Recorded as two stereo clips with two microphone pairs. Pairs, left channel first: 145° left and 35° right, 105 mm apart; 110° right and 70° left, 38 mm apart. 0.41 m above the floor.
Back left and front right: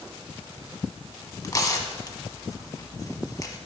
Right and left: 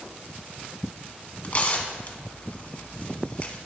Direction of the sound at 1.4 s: 160° right.